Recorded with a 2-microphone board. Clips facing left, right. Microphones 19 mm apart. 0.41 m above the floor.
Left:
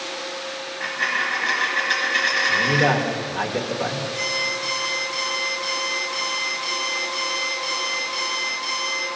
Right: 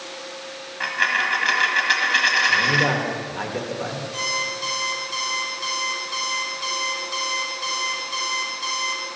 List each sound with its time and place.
0.8 s a dropped coin: 45° right (ahead or behind), 1.4 m
2.5 s a man speaking: 10° left (ahead or behind), 1.0 m
4.1 s an alarm clock: 60° right (ahead or behind), 2.5 m